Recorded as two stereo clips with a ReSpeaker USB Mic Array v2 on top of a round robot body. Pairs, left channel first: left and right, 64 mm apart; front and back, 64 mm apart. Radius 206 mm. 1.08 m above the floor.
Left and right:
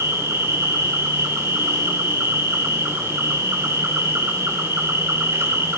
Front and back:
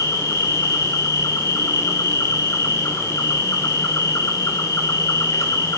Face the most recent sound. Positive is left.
turn(degrees=-40)